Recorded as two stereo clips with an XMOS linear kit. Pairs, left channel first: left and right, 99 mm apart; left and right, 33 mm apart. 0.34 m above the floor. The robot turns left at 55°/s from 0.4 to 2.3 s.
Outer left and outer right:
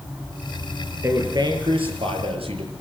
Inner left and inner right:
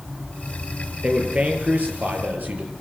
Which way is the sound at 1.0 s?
30° right.